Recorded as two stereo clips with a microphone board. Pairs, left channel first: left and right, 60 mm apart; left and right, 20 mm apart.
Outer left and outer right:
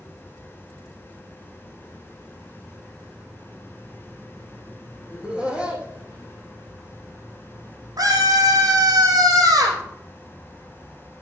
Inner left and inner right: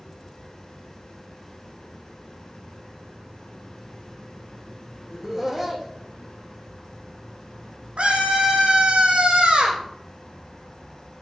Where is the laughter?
15° right (ahead or behind), 6 m.